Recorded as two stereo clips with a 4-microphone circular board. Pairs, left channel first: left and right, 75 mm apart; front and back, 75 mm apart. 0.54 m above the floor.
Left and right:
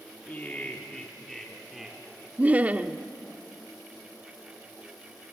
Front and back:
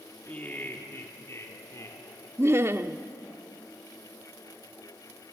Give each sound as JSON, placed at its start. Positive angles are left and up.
{"t": 0.3, "sound": "laughter", "azimuth_deg": 50, "distance_m": 1.5}
{"t": 2.4, "sound": "laughter", "azimuth_deg": -150, "distance_m": 0.8}